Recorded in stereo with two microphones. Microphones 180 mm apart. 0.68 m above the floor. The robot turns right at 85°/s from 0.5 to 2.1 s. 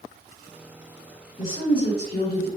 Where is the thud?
I don't hear a thud.